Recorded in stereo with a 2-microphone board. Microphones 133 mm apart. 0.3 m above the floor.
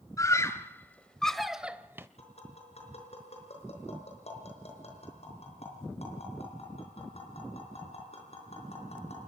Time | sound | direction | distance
0.2 | a scream | 25° left (ahead or behind) | 1.6 m
2.2 | tapping | 55° left (ahead or behind) | 5 m